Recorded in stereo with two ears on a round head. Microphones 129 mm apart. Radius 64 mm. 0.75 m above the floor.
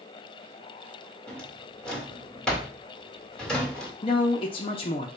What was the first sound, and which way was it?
A drawer, 5° left (ahead or behind).